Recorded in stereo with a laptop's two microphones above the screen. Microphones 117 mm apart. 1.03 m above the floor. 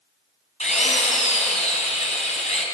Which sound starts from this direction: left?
A drill, at 0.6 s.